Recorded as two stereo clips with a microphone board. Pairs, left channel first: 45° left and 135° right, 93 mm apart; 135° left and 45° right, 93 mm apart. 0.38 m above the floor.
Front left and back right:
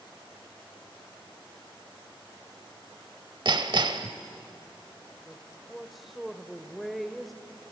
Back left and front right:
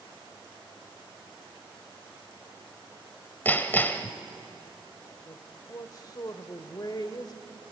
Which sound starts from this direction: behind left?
A woman speaking, at 5.3 s.